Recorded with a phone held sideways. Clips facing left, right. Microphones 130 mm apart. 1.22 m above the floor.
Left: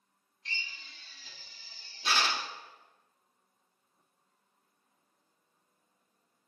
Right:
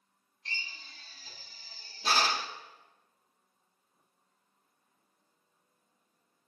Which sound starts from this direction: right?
A drill, at 0.5 s.